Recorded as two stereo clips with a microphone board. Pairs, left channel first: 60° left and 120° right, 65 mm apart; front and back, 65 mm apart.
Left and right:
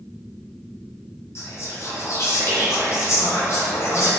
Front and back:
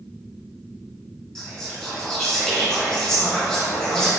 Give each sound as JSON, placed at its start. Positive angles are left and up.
{"t": 1.4, "sound": "whispering", "azimuth_deg": 75, "distance_m": 1.5}